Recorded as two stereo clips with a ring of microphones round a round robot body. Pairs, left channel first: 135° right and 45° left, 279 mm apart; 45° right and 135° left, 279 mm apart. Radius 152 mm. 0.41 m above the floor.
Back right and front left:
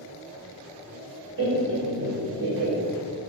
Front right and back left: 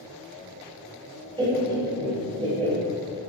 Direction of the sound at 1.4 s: 65° left.